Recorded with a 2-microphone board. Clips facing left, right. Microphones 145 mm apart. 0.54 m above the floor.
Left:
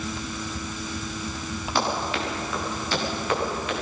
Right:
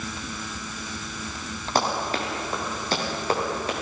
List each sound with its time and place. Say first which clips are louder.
1.8 s running footsteps: right 1 dB; 40° right (ahead or behind), 6.5 m; by 3.7 s 35° right (ahead or behind), 8.5 m